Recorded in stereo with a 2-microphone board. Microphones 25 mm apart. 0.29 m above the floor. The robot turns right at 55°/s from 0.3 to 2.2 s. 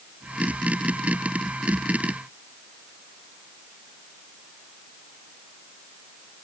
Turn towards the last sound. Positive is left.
No sound to turn to.